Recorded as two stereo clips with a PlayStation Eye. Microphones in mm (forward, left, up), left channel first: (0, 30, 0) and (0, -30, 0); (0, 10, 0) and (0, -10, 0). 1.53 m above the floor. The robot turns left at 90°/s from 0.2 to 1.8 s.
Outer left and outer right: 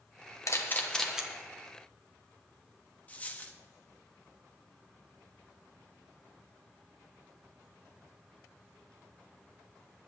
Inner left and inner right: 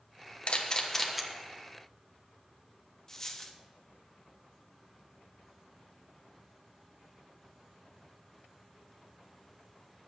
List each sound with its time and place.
0.5 s a camera shutter: 55° left (ahead or behind), 1.3 m; by 1.2 s 15° right (ahead or behind), 1.3 m
3.1 s a dropped coin: 25° left (ahead or behind), 0.9 m